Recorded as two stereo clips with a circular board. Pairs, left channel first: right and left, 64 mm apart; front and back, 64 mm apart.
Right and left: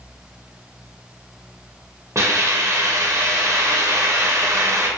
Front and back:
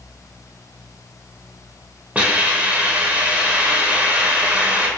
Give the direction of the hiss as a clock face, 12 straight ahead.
8 o'clock.